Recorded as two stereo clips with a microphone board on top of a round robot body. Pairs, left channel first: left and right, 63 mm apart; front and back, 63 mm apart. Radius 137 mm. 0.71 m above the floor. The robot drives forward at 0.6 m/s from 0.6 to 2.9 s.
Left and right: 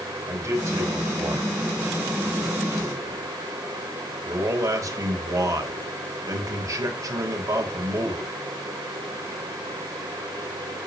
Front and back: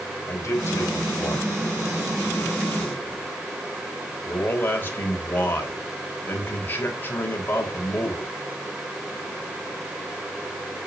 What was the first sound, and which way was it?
A man speaking, 45° right.